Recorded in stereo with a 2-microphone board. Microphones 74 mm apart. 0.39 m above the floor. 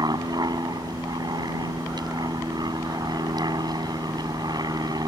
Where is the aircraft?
65° right (ahead or behind).